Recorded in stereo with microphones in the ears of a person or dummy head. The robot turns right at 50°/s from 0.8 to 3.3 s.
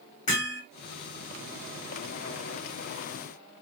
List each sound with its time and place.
0.3 s hammering: 35° left (ahead or behind), 1.3 m